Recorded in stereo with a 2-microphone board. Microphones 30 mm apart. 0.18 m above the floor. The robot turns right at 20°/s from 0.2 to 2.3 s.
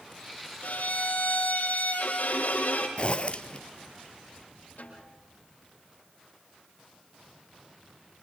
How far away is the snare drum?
About 7 m.